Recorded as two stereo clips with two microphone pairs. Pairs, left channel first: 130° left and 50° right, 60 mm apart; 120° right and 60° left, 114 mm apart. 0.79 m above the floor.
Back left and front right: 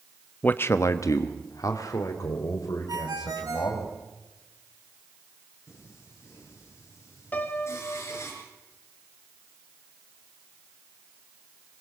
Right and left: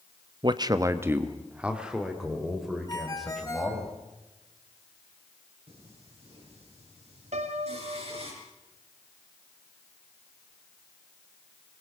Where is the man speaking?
75° left, 0.9 m; by 3.9 s 150° left, 5 m.